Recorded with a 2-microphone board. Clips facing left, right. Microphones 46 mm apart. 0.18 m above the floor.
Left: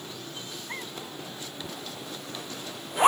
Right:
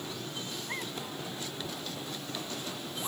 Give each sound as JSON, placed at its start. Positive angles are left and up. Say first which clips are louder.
{"t": 1.6, "sound": "a zipper", "louder": "even", "side_deg": 75}